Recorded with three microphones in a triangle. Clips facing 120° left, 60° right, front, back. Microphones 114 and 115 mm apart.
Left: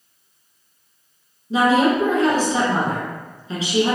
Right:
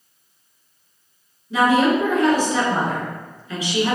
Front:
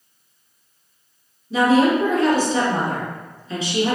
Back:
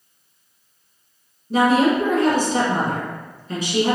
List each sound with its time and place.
1.5 s a woman speaking: 175° left, 1.8 m